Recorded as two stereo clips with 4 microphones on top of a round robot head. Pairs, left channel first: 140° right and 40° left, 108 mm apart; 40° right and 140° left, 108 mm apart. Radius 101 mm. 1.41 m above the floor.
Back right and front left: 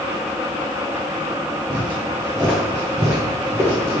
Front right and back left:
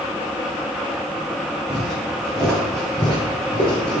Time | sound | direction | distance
1.7 | footsteps | 85° left | 1.5 m